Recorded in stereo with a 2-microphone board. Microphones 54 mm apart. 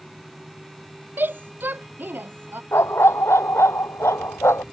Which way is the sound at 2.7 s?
55° left (ahead or behind).